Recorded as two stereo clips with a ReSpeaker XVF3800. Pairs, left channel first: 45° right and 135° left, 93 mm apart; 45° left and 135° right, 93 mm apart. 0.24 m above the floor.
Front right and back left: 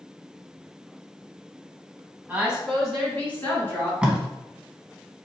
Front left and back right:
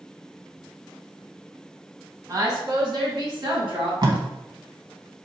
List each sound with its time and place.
2.3 s a woman speaking: 165° right, 1.3 m; by 3.9 s 110° right, 3 m
4.0 s tape being pulled: 150° right, 0.7 m